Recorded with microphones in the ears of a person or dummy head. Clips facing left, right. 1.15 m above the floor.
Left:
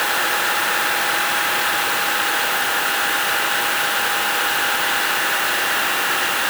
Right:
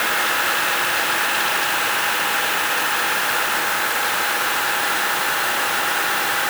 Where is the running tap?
I don't hear a running tap.